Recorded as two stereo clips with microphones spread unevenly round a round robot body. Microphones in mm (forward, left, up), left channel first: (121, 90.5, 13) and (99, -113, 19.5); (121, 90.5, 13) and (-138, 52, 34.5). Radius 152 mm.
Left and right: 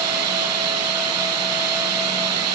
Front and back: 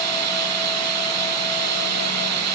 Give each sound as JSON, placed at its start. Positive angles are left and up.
{"t": 0.0, "sound": "running water", "azimuth_deg": -125}